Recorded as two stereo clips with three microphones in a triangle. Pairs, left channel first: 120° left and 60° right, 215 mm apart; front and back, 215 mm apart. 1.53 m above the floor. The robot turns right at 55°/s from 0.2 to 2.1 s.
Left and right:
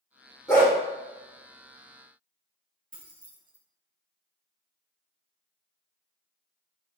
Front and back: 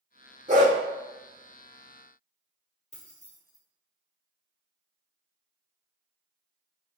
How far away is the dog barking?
About 1.4 m.